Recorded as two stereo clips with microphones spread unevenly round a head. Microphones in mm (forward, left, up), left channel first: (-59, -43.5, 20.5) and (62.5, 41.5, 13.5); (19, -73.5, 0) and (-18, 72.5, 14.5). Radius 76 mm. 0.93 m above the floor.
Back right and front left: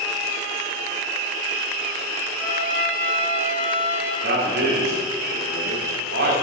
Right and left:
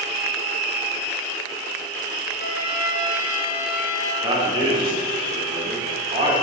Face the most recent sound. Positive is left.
turn(degrees=45)